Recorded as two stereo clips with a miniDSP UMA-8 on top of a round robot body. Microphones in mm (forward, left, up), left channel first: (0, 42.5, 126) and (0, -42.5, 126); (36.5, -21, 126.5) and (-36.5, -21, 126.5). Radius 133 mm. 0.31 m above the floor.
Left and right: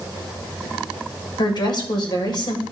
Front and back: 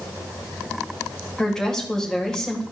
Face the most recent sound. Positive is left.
turn(degrees=80)